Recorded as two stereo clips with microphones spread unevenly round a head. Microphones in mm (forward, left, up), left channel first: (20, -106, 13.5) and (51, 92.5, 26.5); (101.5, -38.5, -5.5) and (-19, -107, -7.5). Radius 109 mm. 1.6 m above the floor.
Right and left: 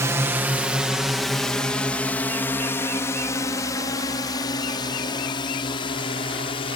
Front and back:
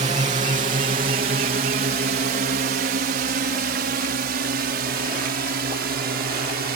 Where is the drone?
160° left; by 6.8 s 165° right.